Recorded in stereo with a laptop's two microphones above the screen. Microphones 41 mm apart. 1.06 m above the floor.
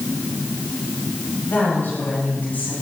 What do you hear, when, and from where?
1.4 s a woman speaking: 55° left (ahead or behind), 6.5 m